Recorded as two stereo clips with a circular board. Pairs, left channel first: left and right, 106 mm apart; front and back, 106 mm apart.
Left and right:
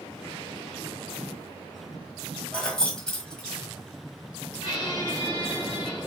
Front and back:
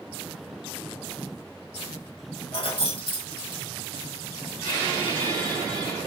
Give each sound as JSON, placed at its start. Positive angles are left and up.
{"t": 2.5, "sound": "keys jangling", "azimuth_deg": 5, "distance_m": 1.5}
{"t": 4.6, "sound": "a squeak", "azimuth_deg": 45, "distance_m": 3.5}